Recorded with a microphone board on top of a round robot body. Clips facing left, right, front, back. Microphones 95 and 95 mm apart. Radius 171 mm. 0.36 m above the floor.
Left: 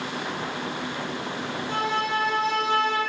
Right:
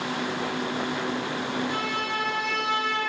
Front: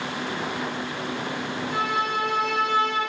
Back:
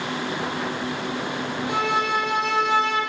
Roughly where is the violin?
Behind left.